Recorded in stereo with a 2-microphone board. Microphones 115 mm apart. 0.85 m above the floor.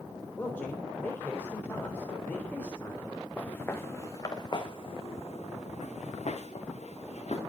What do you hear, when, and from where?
0.4 s a man speaking: 15° left (ahead or behind), 3.5 m
3.4 s footsteps: 10° left (ahead or behind), 3 m; by 7.4 s 65° left (ahead or behind), 4 m